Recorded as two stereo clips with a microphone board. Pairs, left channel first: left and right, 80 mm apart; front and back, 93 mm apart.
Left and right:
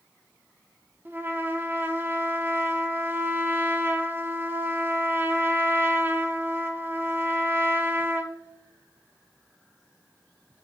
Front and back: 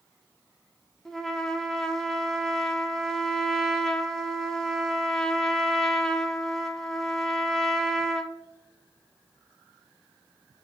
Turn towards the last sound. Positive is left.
turn(degrees=-80)